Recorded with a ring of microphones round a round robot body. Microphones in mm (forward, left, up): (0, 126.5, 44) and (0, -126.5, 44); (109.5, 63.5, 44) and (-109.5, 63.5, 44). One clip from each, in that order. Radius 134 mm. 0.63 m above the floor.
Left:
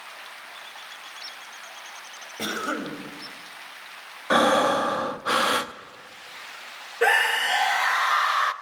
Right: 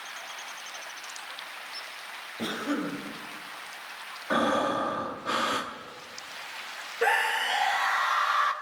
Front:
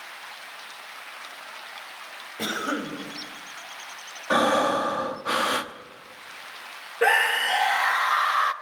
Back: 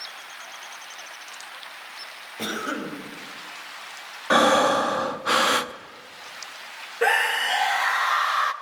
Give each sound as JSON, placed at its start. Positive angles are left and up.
{"t": 2.4, "sound": "a cough", "azimuth_deg": 80, "distance_m": 4.0}
{"t": 4.3, "sound": "breathing", "azimuth_deg": 115, "distance_m": 0.8}
{"t": 7.0, "sound": "a scream", "azimuth_deg": 75, "distance_m": 1.0}